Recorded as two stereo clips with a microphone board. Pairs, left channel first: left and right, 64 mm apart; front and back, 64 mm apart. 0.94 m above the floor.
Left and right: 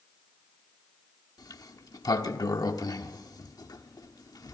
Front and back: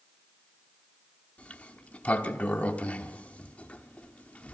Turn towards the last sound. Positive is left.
turn(degrees=70)